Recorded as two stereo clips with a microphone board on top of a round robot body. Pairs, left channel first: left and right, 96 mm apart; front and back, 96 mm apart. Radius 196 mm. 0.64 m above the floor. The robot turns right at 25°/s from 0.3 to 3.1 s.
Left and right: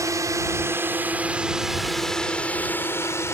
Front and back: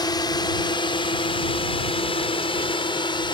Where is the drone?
35° right; by 3.3 s 30° left.